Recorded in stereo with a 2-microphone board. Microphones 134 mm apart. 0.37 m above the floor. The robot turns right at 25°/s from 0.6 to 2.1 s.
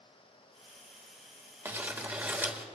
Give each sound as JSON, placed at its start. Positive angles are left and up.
{"t": 1.6, "sound": "crumpling", "side_deg": -20, "distance_m": 1.4}